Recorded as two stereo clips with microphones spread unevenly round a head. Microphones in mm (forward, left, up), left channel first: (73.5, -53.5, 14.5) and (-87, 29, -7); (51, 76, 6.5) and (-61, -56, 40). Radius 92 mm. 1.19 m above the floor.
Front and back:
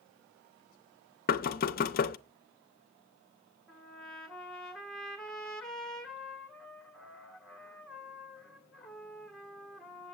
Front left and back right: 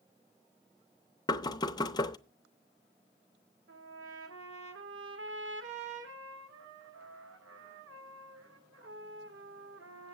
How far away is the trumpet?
About 1.6 m.